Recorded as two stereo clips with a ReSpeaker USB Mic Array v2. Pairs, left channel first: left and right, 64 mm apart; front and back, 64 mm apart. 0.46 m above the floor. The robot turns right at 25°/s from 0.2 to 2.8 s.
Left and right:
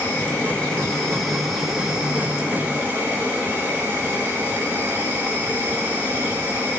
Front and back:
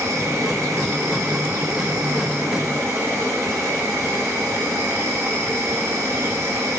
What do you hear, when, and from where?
0.0 s an insect: 150° left, 1.2 m; by 6.8 s 145° right, 1.2 m